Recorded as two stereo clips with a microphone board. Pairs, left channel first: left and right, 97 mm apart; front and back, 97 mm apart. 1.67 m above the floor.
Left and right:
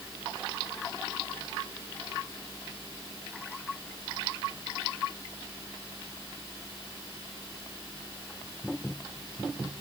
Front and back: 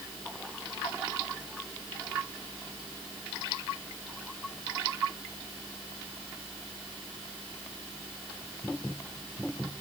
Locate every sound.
Only background noise.